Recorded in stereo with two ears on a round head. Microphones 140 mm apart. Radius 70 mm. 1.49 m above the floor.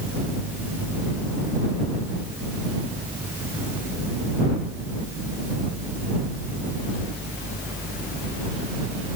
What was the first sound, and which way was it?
Only background noise.